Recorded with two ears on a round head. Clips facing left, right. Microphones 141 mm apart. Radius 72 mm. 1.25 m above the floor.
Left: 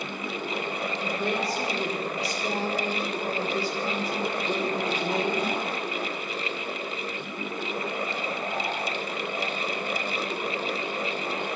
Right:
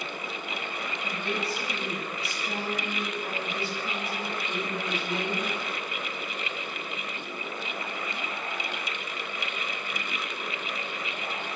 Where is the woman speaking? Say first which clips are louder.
Left 4 dB; 30° left (ahead or behind), 6 m.